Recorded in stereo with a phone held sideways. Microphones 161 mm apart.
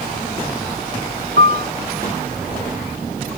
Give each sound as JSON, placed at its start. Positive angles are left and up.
{"t": 1.4, "sound": "a piano", "side_deg": -80}